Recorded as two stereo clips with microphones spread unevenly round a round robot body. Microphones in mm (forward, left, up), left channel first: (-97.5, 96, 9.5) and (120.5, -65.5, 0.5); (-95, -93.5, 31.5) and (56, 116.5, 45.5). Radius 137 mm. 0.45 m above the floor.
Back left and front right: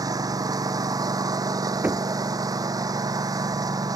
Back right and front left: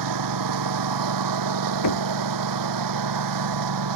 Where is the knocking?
120° right.